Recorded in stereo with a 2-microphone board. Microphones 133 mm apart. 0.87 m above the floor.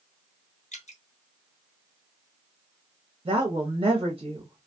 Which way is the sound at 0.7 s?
65° left (ahead or behind).